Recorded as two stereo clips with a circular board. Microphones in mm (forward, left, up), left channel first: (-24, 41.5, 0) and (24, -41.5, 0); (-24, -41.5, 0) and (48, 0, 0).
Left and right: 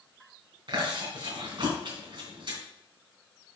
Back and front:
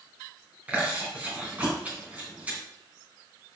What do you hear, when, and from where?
0.7 s chewing: 40° right, 3 m